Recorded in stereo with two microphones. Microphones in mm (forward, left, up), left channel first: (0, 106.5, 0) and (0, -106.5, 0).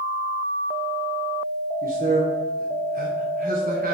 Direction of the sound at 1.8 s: 40° right (ahead or behind).